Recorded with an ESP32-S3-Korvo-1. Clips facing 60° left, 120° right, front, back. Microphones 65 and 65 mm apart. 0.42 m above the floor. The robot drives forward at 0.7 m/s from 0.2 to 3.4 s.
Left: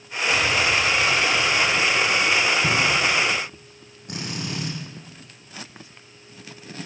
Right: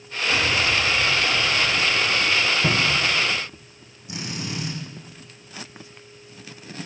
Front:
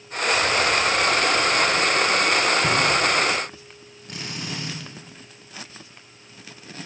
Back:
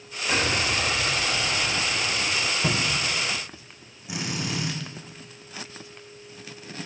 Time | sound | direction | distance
0.3 | an explosion | 170° left | 1.0 m
2.6 | a cupboard door | 100° right | 1.8 m
4.1 | a drill | 100° left | 9 m